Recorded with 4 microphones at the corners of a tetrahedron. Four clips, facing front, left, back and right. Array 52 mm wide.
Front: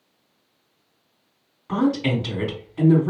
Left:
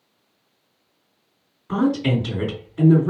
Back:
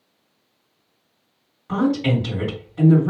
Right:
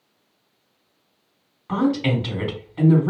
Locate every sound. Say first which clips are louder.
1.7 s a woman speaking: even, back 1 dB; 90° right, 2 m